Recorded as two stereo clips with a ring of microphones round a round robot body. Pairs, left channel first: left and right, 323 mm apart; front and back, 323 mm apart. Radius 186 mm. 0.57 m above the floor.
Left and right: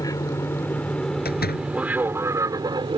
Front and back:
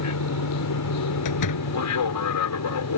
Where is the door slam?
30° left.